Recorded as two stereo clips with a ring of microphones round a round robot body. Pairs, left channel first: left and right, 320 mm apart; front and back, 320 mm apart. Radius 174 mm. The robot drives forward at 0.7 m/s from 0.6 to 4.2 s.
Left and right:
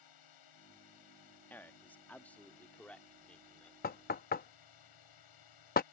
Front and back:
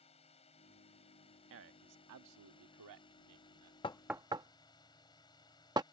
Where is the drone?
75° left; by 5.9 s 80° left.